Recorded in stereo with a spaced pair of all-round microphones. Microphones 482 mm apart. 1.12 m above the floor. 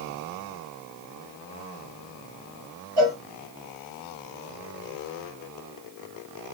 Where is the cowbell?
Centre (ahead or behind), 2 m.